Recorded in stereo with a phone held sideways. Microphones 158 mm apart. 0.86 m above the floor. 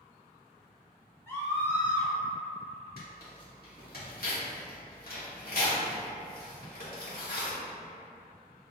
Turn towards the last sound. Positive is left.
turn(degrees=70)  # may be behind; listen again after turning